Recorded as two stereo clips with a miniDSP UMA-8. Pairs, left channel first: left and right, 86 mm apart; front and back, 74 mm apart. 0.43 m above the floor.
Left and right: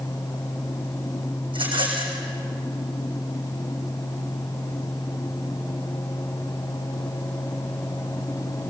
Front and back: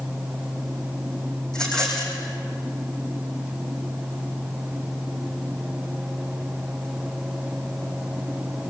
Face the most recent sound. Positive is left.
turn(degrees=-80)